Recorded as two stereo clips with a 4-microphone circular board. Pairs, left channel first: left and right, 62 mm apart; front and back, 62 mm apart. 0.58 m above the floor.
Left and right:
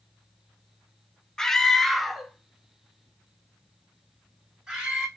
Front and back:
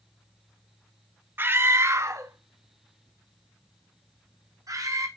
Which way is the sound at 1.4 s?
165° left.